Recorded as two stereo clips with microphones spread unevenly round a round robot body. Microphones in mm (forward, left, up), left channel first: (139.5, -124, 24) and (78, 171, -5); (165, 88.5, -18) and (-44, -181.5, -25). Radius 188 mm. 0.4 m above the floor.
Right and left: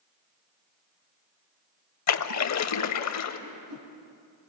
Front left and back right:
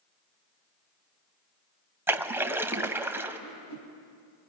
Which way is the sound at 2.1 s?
45° right.